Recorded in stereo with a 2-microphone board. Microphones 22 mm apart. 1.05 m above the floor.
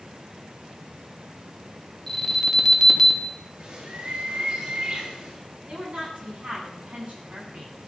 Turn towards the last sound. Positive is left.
turn(degrees=-55)  # may be behind; listen again after turning